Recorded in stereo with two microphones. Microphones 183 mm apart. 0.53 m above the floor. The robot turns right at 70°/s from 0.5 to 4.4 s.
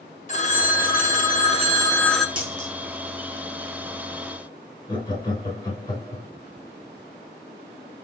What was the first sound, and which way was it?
A phone ringing, 60° left.